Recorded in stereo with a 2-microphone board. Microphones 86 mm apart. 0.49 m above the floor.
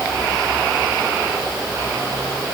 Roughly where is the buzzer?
I don't hear a buzzer.